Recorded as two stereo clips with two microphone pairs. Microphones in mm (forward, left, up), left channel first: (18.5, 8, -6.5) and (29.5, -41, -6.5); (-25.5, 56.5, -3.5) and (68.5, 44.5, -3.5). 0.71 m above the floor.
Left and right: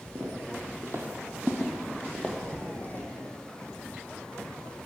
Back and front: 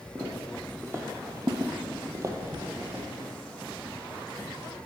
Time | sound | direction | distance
0.1 | footsteps | 70° right | 1.6 m
2.4 | knocking | 30° left | 2.5 m